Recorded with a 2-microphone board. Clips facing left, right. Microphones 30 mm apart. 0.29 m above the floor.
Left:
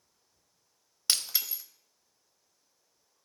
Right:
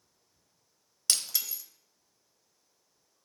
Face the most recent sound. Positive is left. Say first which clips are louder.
# left 1 dB
turn(degrees=20)  # may be behind; listen again after turning